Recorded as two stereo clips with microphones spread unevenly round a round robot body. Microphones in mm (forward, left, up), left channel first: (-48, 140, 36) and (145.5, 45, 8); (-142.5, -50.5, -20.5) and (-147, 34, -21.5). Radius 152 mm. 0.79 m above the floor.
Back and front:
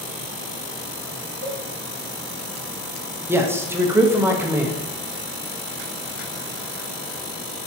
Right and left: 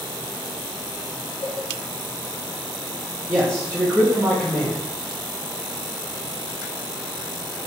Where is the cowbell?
50° right, 0.7 m.